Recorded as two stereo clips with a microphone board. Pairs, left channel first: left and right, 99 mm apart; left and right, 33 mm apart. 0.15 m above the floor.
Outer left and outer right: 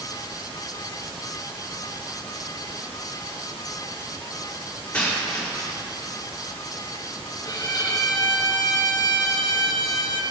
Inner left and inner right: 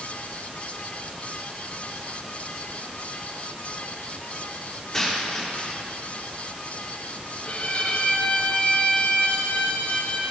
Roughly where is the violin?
Left.